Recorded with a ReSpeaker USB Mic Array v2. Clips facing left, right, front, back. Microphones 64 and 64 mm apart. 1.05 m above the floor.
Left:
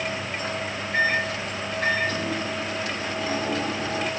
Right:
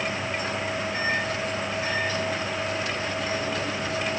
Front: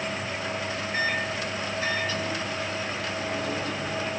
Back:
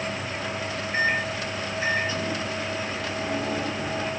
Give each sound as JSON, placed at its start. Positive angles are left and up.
{"t": 0.9, "sound": "a microwave", "azimuth_deg": 115, "distance_m": 7.0}